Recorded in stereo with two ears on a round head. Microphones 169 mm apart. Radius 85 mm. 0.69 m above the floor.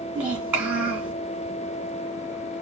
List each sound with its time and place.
0.1 s a child speaking: 10° right (ahead or behind), 3 m